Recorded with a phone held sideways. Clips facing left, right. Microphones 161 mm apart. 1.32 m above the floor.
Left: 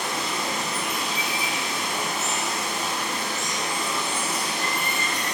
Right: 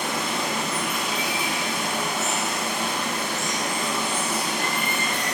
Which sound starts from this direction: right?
Running water, at 0.0 s.